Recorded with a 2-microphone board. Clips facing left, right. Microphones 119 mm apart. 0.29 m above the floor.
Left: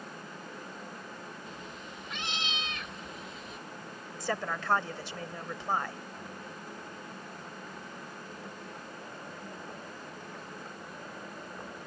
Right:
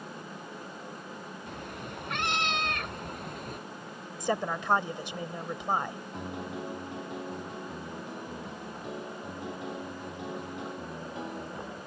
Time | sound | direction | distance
1.5 | a cat meowing | 60° right (ahead or behind) | ?
4.2 | a woman speaking | 20° right (ahead or behind) | ?
6.1 | a piano | 85° right | ?